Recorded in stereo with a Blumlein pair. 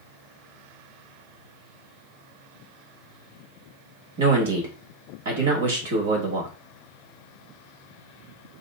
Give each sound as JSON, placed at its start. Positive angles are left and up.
{"t": 4.2, "sound": "a man speaking", "azimuth_deg": -55, "distance_m": 1.3}